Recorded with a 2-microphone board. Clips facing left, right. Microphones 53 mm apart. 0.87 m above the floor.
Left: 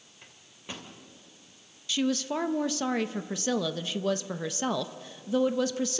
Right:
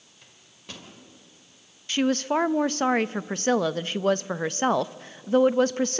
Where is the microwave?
20° left (ahead or behind), 2.5 m.